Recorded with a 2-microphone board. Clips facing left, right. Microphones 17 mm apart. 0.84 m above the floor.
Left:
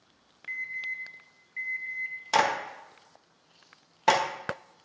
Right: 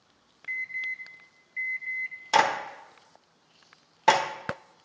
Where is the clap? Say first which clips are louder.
Right 2 dB; 5° right (ahead or behind), 0.8 m.